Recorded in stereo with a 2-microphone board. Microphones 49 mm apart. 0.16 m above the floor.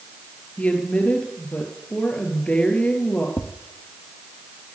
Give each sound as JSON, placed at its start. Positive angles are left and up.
{"t": 0.6, "sound": "a woman speaking", "side_deg": 25, "distance_m": 3.5}
{"t": 3.4, "sound": "tapping", "side_deg": 60, "distance_m": 1.4}